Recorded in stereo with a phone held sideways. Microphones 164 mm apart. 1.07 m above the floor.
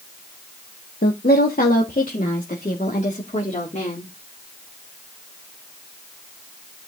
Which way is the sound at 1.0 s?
70° left (ahead or behind).